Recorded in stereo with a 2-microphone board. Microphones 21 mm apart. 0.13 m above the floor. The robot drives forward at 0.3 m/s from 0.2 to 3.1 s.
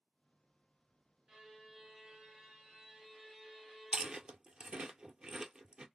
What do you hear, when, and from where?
1.3 s a violin: 30° right (ahead or behind), 1.3 m; by 4.4 s 25° right (ahead or behind), 1.6 m
3.9 s chewing: 50° right (ahead or behind), 0.5 m